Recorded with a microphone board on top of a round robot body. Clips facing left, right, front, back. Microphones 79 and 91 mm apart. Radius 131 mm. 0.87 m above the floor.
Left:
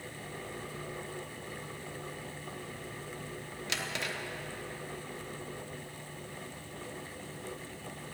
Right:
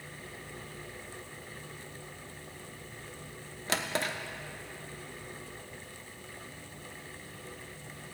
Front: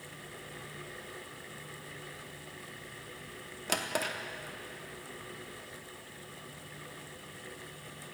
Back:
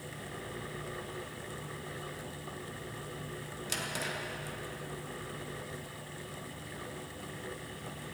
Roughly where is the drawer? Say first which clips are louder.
Right 5 dB, front 5 dB; ahead right.